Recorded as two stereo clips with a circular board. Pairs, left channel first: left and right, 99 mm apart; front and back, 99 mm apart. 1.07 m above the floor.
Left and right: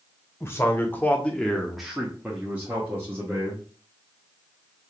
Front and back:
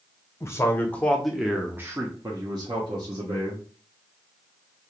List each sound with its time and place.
0.4 s a man speaking: 40° left, 0.8 m; by 3.6 s 155° right, 1.3 m